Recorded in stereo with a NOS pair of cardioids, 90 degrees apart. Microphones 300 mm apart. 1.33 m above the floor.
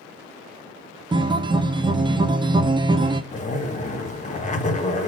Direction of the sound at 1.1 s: 15° right.